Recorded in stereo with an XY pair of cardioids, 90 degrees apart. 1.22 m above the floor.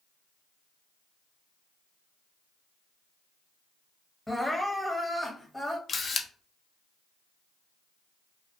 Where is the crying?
5° left, 1.0 m.